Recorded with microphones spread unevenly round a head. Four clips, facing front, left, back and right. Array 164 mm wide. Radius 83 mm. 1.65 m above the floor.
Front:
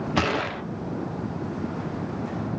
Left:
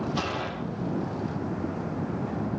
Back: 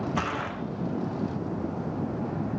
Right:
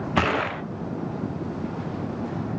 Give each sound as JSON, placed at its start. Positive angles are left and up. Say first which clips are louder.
{"t": 0.2, "sound": "a gunshot", "louder": "right 7 dB, front 5 dB", "azimuth_deg": -50, "distance_m": 0.9}